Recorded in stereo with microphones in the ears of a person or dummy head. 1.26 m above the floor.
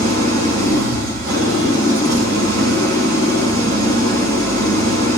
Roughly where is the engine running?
Right.